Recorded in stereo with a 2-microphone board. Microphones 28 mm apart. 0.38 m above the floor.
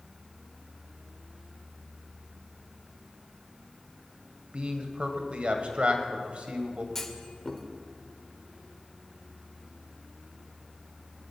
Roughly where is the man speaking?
Right.